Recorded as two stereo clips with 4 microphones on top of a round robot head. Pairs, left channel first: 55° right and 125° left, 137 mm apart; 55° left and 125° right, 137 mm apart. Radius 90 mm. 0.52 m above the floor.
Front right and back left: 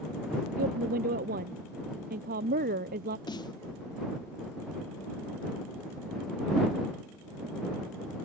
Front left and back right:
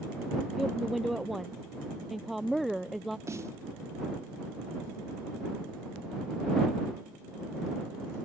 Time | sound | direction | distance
0.6 | a woman speaking | 145° left | ?
3.3 | a snare drum | 75° right | ?